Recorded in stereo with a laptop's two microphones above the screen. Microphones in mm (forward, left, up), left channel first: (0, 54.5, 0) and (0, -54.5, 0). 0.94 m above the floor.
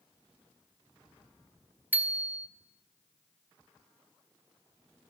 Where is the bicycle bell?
15° right (ahead or behind), 2 m.